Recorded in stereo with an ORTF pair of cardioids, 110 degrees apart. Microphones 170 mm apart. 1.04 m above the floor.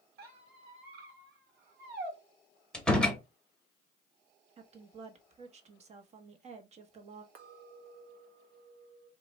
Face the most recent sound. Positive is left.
turn(degrees=-60)